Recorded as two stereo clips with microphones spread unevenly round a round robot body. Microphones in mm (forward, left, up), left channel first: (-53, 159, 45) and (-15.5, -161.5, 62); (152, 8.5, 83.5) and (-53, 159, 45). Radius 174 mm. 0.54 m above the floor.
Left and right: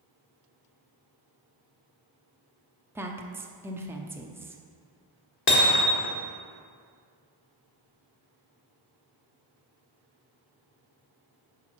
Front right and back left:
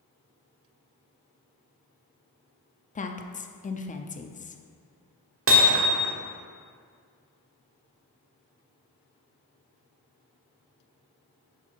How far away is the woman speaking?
About 0.7 m.